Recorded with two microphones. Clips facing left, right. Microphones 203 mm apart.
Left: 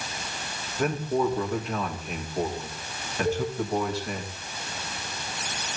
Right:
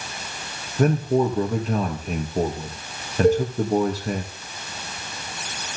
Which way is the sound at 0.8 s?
40° right (ahead or behind).